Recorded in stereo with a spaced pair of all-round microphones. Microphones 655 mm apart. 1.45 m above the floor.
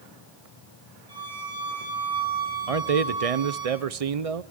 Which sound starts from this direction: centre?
A violin, at 1.1 s.